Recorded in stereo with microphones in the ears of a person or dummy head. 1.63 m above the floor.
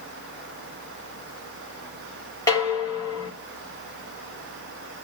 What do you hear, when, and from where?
2.5 s dishes clattering: 20° left (ahead or behind), 1.7 m